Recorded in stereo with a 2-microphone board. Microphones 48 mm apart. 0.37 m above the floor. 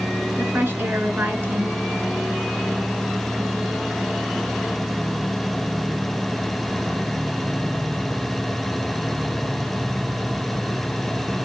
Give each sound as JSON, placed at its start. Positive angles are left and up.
{"t": 0.4, "sound": "a woman speaking", "side_deg": -40, "distance_m": 4.5}